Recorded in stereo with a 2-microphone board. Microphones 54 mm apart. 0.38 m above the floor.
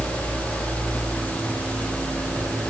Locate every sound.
Only background noise.